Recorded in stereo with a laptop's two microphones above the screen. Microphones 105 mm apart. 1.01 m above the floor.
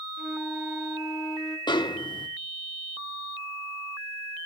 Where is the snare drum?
45° left (ahead or behind), 0.9 m.